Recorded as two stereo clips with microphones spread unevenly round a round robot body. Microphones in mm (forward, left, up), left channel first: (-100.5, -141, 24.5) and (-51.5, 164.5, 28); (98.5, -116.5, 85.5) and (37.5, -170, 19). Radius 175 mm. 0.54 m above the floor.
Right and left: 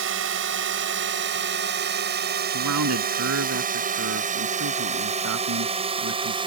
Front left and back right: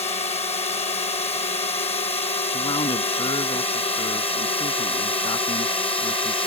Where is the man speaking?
30° left.